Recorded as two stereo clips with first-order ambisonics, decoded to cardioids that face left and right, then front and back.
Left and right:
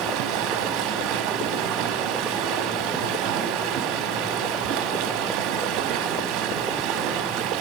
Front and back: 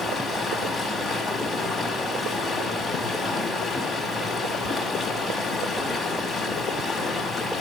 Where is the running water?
90° right, 1.4 m.